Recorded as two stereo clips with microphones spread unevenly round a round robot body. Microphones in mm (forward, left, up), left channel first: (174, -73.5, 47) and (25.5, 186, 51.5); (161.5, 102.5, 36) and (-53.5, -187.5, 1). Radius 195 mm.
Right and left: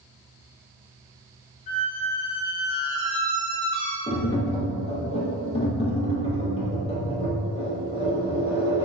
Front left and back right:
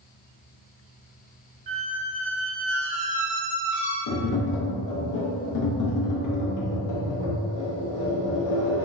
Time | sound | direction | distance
1.7 | a squeak | 90° right | 0.7 m
4.1 | tapping | 15° left | 0.6 m